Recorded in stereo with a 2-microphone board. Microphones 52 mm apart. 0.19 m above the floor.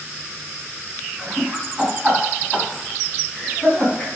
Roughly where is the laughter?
Centre.